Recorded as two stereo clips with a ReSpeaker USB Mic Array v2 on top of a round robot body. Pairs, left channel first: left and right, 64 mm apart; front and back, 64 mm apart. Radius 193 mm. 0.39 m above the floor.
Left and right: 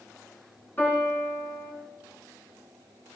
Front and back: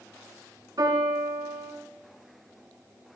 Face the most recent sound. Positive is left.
turn(degrees=150)